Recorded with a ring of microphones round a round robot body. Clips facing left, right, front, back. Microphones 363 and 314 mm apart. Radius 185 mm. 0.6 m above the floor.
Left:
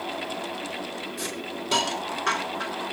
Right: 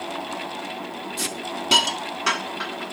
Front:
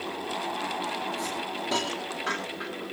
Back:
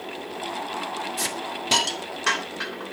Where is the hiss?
125° right, 3.5 m.